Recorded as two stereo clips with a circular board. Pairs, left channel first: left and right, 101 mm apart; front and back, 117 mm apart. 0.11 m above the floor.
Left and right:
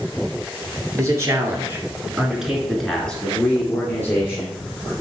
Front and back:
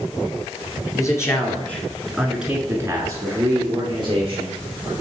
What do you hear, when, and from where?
0.9 s a man speaking: 50° right, 2 m; by 4.9 s 150° left, 3 m